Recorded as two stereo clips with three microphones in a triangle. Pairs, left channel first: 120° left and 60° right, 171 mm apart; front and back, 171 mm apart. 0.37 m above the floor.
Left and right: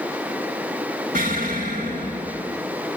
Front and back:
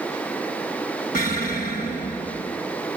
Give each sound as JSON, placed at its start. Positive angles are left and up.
{"t": 1.1, "sound": "an explosion", "azimuth_deg": -30, "distance_m": 3.0}